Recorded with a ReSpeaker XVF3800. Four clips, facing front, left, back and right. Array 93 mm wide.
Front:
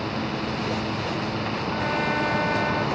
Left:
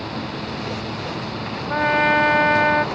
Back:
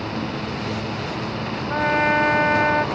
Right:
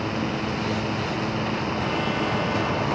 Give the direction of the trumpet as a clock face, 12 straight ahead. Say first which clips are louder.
Left 8 dB, back 8 dB; 8 o'clock.